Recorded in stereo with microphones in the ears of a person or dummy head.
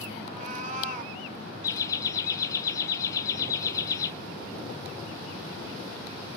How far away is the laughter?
About 1.6 m.